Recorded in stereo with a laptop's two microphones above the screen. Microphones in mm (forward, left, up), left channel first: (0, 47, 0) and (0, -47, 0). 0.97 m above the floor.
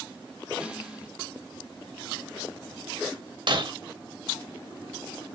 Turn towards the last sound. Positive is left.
turn(degrees=-60)  # may be behind; listen again after turning